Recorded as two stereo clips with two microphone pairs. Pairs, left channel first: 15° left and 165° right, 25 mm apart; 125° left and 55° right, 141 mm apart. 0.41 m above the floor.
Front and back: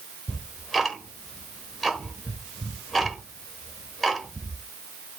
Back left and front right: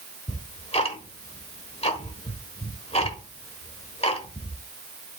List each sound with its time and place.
0.3 s ticking: 95° left, 1.2 m